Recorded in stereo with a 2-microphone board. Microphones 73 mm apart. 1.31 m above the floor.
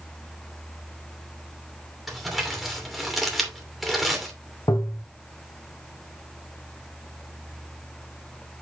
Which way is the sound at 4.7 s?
70° left (ahead or behind).